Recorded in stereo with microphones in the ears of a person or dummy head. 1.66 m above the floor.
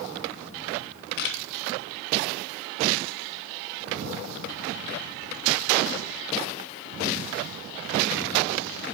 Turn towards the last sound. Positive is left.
turn(degrees=60)  # may be behind; listen again after turning